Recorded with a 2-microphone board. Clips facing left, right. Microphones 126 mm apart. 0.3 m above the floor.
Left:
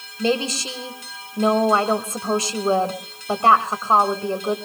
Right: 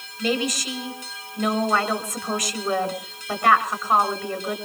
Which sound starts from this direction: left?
A woman speaking, at 0.2 s.